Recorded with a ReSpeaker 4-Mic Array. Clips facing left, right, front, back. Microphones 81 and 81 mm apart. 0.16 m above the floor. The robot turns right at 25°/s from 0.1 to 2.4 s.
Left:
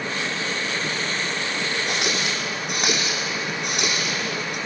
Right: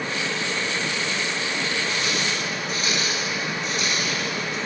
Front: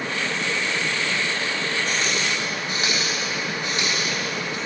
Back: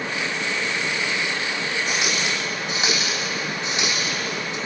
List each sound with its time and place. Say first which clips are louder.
1.9 s a running tap: left 1 dB, even; 95° left, 5.5 m; by 4.6 s 110° left, 5.5 m